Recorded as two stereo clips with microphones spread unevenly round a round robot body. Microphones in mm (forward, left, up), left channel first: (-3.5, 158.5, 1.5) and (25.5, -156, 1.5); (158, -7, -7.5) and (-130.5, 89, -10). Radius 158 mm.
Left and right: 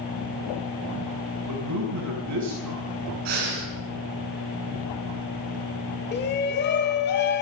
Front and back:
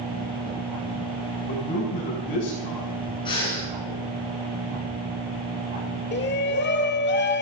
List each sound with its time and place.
1.5 s a man speaking: 75° right, 6 m
3.2 s breathing: 95° right, 6 m
6.1 s a shout: 35° left, 1.7 m